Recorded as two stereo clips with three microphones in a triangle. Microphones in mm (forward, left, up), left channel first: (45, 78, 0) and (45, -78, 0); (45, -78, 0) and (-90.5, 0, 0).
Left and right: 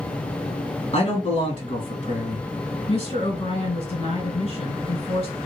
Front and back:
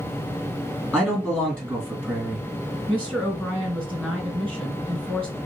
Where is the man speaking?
55° left, 2.0 m.